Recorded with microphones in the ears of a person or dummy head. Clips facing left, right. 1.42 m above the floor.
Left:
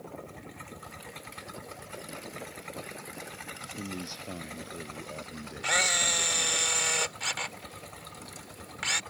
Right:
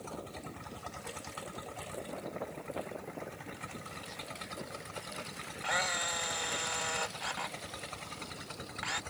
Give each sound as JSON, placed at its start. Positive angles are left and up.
{"t": 3.8, "sound": "a man speaking", "side_deg": 65}
{"t": 5.6, "sound": "a camera shutter", "side_deg": 40}